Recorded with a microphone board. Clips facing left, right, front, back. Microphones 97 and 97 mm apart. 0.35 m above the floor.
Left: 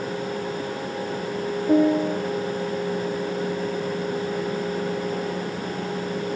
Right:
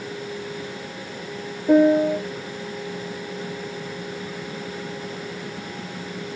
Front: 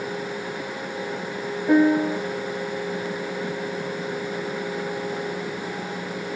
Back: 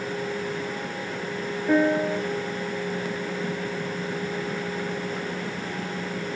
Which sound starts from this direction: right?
A piano, at 1.7 s.